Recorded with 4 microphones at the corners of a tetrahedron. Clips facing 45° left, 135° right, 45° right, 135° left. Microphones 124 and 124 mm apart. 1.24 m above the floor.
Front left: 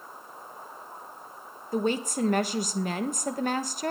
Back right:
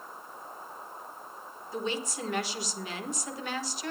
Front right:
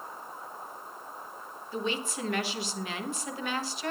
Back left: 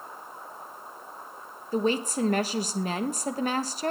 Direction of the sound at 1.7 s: 85° left.